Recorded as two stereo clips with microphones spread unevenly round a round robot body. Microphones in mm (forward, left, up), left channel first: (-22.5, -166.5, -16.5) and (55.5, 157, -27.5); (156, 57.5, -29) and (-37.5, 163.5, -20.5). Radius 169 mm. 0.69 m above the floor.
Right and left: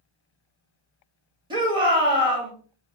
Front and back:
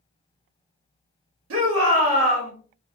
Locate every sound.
1.5 s a shout: 150° left, 1.2 m